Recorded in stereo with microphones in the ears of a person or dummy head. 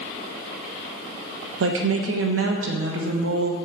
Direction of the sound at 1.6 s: 70° right (ahead or behind).